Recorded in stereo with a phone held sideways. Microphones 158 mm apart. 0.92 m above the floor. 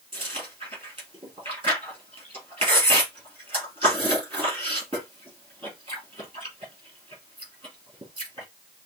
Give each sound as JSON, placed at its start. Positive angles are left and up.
{"t": 0.1, "sound": "chewing", "side_deg": -35, "distance_m": 3.5}